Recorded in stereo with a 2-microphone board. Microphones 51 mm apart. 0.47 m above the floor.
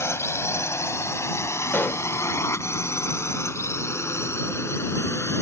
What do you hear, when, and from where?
0.0 s a drone: 65° left (ahead or behind)
1.7 s a pop: 45° left (ahead or behind)